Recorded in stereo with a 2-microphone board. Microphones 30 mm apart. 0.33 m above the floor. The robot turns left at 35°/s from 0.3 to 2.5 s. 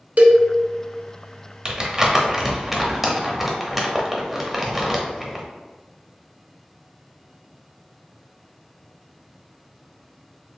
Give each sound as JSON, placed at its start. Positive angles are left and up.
{"t": 0.2, "sound": "a cowbell", "side_deg": -55, "distance_m": 0.5}
{"t": 1.6, "sound": "crumpling", "side_deg": -30, "distance_m": 0.6}